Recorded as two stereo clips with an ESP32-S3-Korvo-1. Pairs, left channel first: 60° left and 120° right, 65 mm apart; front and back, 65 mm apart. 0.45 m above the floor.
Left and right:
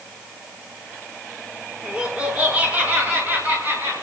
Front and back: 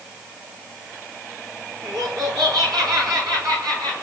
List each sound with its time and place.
1.8 s laughter: 165° left, 6.5 m; by 3.9 s 170° right, 7.5 m